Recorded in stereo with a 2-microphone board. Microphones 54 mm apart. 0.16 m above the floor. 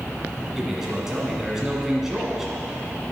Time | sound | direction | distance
0.6 | a man speaking | 10° right (ahead or behind) | 1.6 m